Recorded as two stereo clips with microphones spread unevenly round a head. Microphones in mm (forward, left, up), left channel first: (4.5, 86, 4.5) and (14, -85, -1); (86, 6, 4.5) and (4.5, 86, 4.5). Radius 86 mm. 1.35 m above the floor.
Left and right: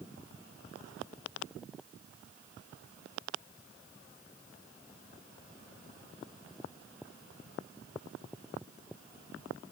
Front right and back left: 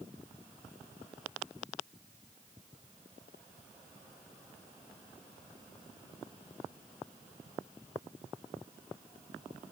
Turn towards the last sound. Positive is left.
No sound to turn to.